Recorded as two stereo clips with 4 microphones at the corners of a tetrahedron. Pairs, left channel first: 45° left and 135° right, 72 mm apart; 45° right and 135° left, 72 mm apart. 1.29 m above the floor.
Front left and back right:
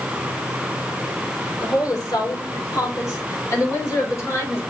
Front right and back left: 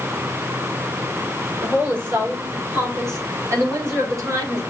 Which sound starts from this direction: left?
A woman speaking, at 1.6 s.